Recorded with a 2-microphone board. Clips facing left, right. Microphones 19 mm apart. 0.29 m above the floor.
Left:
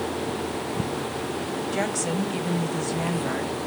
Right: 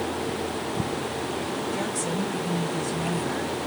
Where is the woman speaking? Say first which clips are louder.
Left 2 dB; 40° left (ahead or behind), 1.2 m.